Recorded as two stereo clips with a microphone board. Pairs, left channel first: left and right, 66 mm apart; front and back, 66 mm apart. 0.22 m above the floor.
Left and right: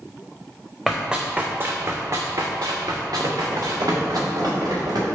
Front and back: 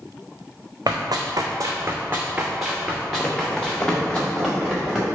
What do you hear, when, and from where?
0.9 s running footsteps: straight behind, 0.7 m; by 4.2 s 75° right, 1.5 m
3.2 s running footsteps: 65° right, 0.6 m; by 5.0 s 90° right, 1.6 m